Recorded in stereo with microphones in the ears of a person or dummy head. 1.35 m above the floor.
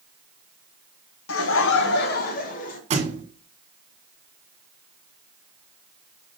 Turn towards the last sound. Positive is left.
turn(degrees=-30)  # may be behind; listen again after turning